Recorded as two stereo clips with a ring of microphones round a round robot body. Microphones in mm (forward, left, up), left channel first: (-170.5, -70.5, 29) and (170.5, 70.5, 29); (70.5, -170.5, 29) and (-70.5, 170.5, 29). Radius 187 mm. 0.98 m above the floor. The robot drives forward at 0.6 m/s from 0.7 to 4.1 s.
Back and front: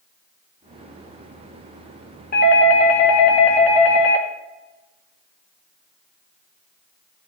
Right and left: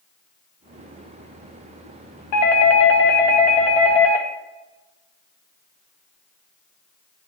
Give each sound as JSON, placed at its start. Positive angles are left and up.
{"t": 2.3, "sound": "a doorbell", "azimuth_deg": -95, "distance_m": 0.9}